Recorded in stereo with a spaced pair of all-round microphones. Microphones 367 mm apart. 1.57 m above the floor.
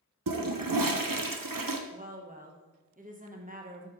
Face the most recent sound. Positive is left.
turn(degrees=-25)  # may be behind; listen again after turning